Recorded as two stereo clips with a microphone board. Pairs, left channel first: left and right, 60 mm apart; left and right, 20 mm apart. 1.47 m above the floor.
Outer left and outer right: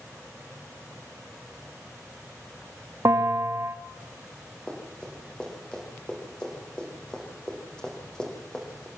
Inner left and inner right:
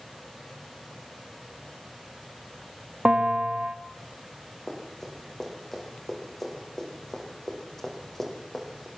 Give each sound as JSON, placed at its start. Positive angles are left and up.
{"t": 3.0, "sound": "a bell", "side_deg": -65, "distance_m": 1.8}
{"t": 4.7, "sound": "running footsteps", "side_deg": 15, "distance_m": 6.5}